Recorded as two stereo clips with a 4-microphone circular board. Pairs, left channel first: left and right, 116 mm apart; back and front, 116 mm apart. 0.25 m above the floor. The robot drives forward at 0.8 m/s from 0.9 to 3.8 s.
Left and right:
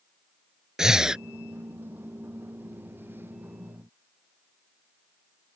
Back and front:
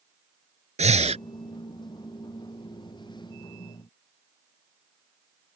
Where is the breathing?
5° right; by 1.2 s 10° right.